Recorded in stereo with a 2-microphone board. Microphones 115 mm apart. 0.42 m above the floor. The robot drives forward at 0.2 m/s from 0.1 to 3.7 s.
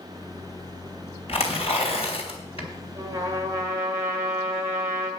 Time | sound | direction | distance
1.3 | tearing paper | 55° left (ahead or behind) | 3 m
3.0 | a trumpet | 25° right (ahead or behind) | 1.7 m